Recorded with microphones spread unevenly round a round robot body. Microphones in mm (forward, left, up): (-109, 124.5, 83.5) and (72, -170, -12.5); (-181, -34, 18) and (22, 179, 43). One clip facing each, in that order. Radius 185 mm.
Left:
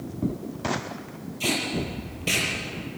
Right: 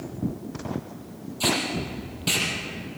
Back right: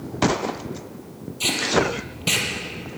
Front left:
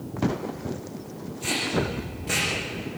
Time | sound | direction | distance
1.4 | tape being pulled | 135° right | 6.5 m